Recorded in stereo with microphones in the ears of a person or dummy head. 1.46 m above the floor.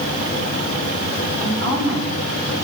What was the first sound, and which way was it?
A woman speaking, 35° left (ahead or behind).